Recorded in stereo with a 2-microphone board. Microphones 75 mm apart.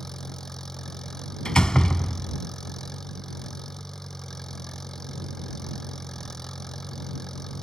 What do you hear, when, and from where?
0.0 s an engine running: 5° left (ahead or behind)
1.4 s a door slam: 10° left (ahead or behind)